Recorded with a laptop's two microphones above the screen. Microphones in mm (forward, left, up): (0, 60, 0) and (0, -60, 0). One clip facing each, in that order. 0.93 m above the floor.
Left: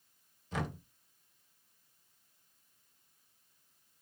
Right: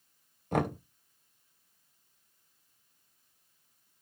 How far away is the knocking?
About 0.6 m.